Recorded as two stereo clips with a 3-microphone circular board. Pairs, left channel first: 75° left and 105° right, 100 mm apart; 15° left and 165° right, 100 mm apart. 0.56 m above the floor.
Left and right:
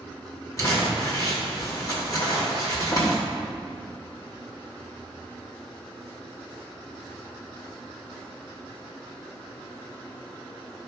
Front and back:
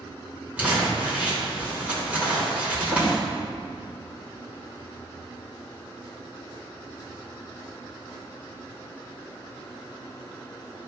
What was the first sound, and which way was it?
Crumpling, 125° left.